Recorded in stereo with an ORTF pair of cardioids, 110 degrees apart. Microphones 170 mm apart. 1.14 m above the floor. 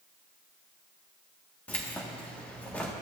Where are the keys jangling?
10° left, 1.3 m.